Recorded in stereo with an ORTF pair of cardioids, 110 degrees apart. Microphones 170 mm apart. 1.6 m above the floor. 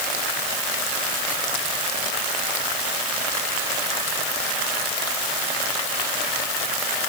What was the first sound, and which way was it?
Only background noise.